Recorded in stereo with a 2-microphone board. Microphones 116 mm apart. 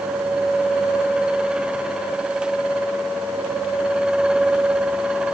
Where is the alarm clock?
I don't hear an alarm clock.